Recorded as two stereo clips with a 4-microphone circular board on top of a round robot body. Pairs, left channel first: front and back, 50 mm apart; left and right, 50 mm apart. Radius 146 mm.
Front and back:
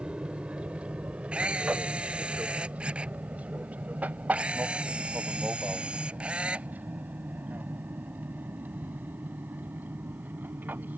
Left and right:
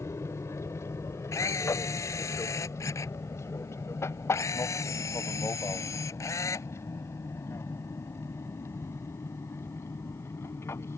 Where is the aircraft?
110° left; by 11.0 s 125° left.